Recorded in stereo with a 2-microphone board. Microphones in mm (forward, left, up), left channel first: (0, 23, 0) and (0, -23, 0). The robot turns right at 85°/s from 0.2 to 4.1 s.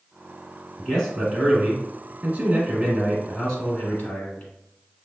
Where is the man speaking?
145° left, 1.7 m; by 4.5 s 70° left, 1.7 m.